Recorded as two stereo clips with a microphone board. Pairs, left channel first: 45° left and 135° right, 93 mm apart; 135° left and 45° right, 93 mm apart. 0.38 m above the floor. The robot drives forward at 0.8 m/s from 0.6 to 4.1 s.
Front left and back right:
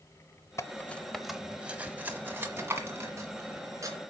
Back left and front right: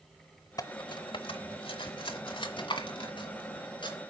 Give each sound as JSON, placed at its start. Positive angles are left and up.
{"t": 0.6, "sound": "cutlery clinking", "azimuth_deg": 95, "distance_m": 0.7}